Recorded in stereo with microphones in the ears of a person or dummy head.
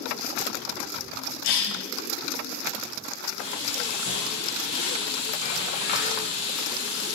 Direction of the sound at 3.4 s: 35° left (ahead or behind).